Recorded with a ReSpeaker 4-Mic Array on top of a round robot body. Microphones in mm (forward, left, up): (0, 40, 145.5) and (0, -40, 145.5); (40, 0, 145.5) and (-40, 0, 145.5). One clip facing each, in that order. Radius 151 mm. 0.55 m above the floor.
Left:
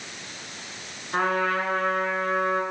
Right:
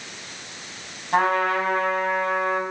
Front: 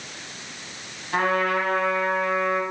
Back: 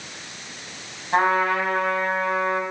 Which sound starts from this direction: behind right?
A trumpet, at 1.1 s.